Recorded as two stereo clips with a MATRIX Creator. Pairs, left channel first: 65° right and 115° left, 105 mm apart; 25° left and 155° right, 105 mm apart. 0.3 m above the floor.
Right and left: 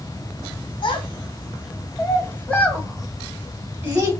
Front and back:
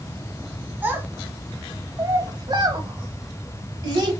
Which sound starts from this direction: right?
A child speaking, at 0.8 s.